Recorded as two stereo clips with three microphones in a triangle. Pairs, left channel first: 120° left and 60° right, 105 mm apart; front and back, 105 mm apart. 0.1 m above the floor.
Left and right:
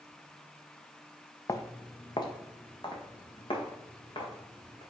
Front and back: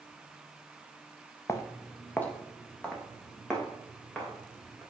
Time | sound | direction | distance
1.5 | footsteps | 60° left | 0.9 m